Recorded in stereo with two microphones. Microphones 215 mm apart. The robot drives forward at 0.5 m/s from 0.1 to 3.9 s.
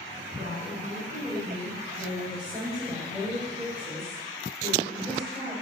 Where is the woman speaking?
20° right (ahead or behind), 6.5 m; by 5.5 s 15° right (ahead or behind), 8 m.